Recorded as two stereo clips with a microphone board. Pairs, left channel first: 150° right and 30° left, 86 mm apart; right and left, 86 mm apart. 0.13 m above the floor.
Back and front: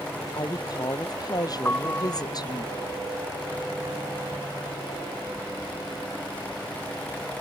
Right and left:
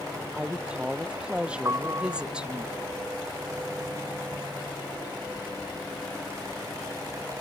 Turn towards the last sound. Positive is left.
turn(degrees=140)